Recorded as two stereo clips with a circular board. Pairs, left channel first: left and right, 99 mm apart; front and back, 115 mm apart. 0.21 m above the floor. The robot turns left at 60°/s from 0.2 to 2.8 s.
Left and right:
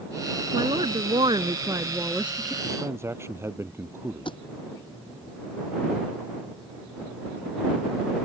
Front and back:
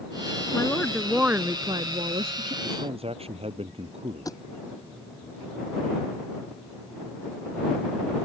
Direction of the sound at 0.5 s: 65° right.